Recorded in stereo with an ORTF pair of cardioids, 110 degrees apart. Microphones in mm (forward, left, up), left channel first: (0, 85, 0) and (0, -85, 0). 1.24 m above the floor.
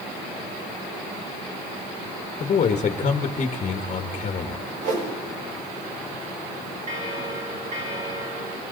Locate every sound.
2.4 s a man speaking: 40° left, 1.5 m
4.8 s a whoosh: 55° right, 6 m
6.9 s a bell: 45° right, 4 m